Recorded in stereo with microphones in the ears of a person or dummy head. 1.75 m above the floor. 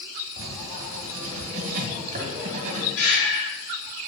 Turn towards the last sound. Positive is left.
turn(degrees=85)